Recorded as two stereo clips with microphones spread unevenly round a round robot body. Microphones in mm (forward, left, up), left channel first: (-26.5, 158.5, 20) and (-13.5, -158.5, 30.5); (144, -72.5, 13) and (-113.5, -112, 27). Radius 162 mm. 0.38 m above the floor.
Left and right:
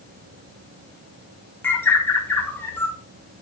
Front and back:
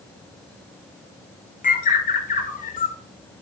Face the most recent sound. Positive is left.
turn(degrees=15)